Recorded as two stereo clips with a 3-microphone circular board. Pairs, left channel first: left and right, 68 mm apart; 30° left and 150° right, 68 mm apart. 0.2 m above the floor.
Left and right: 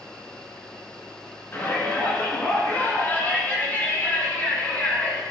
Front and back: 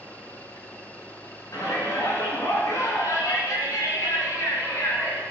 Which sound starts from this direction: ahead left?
A shout, at 1.5 s.